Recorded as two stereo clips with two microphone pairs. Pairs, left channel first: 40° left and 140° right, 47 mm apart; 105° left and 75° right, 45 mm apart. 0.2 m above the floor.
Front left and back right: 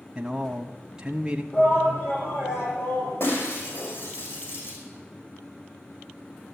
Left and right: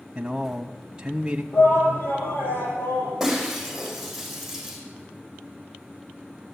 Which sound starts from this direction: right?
A man speaking, at 0.1 s.